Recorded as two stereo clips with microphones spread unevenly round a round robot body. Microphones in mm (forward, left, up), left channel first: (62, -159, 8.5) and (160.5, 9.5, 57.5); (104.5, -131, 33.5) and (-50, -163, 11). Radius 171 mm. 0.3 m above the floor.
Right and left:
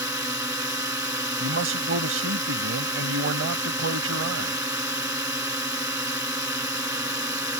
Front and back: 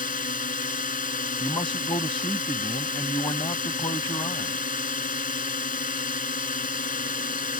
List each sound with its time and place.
0.0 s a drone: 15° right
1.4 s a man speaking: 85° left